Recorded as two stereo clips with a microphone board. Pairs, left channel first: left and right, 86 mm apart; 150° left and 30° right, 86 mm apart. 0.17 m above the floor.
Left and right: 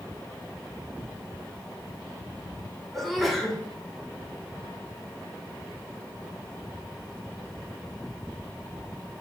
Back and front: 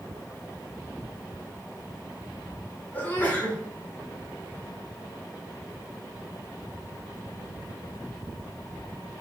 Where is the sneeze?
Straight behind, 1.1 m.